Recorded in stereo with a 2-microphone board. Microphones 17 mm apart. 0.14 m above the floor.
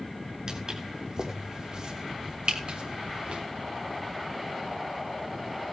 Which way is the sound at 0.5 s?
40° right (ahead or behind).